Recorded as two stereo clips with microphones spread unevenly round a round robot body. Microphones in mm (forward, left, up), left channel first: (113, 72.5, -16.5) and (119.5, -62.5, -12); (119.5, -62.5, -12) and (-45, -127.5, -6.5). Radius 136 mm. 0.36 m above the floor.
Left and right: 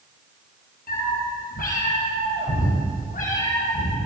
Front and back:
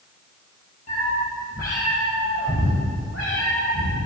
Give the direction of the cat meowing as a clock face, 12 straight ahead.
9 o'clock.